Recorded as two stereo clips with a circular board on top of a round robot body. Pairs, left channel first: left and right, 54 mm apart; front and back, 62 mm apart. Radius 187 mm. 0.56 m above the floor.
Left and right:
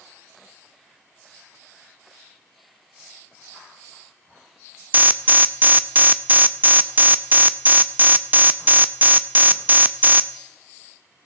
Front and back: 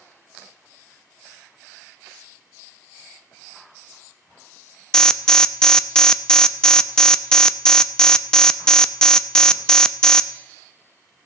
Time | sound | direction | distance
4.9 | an alarm | 70° right | 1.0 m